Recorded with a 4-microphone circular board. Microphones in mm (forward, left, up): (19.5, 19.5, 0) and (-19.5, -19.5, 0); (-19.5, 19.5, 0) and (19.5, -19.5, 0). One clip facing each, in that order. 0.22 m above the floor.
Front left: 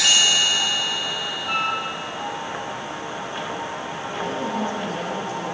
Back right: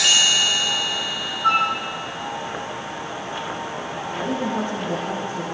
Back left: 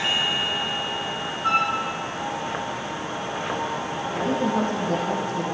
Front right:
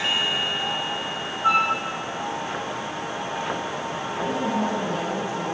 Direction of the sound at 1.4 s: 120° right.